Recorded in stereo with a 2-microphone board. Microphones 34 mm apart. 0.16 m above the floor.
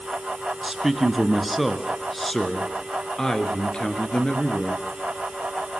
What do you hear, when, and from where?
0.6 s a man speaking: 10° right (ahead or behind), 2.5 m; by 4.8 s 35° left (ahead or behind), 3.5 m